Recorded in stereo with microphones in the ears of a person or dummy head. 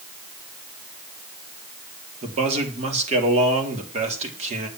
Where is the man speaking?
40° right (ahead or behind), 3 m.